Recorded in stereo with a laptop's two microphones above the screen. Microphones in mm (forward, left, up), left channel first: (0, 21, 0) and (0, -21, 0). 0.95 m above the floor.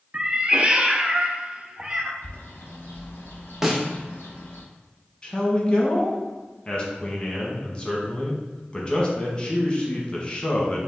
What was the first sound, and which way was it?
A cat meowing, 30° right (ahead or behind).